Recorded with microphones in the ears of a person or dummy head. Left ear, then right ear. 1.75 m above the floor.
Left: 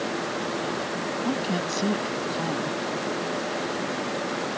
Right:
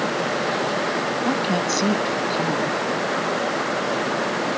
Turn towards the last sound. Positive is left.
turn(degrees=-10)  # may be behind; listen again after turning